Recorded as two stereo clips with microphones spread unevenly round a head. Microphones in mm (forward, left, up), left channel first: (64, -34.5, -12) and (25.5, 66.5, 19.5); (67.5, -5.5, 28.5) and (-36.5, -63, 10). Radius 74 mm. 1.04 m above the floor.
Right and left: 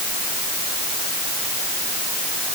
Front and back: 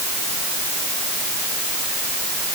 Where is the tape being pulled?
I don't hear tape being pulled.